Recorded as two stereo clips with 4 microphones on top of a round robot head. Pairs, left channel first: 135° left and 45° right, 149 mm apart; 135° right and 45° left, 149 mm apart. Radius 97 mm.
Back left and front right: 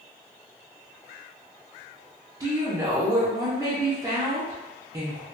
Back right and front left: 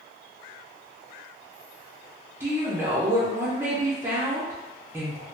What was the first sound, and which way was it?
A woman speaking, 10° right.